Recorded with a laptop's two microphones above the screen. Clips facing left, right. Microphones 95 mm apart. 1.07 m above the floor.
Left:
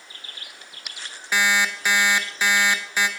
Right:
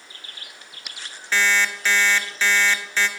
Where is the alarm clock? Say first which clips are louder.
Even; 15° left (ahead or behind), 0.8 m.